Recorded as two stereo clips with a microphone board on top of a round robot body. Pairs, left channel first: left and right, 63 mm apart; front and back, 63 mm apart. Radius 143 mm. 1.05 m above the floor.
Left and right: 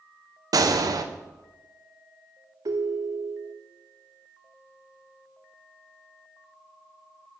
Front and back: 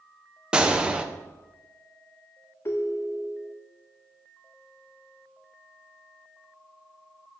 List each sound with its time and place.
0.5 s a gunshot: 105° right, 0.8 m
2.6 s a ringtone: 55° right, 0.6 m